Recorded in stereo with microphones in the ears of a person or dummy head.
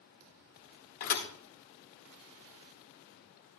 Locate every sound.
1.0 s a thud: 45° left (ahead or behind), 1.1 m